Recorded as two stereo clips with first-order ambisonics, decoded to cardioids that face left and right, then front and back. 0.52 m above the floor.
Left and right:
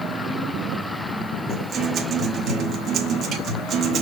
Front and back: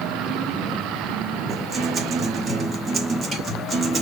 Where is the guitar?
120° right, 1.2 m.